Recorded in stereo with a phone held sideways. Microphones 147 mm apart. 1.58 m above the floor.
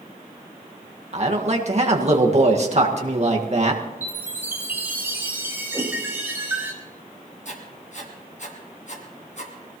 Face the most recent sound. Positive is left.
turn(degrees=55)  # may be behind; listen again after turning